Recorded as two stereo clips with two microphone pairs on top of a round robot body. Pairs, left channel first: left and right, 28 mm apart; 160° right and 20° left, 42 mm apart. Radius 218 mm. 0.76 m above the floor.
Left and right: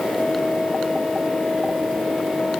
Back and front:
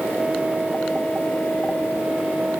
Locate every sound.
Only background noise.